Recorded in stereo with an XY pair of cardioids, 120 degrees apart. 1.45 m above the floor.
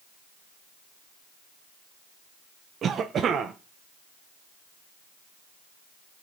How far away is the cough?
About 1.2 m.